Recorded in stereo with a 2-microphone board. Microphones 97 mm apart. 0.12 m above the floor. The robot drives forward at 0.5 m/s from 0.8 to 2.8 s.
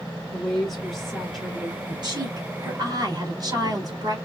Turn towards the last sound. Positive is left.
turn(degrees=-45)  # may be behind; listen again after turning